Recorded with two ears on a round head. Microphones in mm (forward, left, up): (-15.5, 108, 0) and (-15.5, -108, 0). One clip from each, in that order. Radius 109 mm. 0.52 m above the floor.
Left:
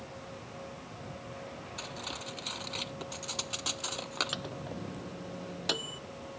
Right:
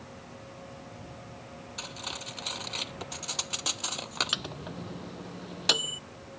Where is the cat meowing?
No cat meowing in this recording.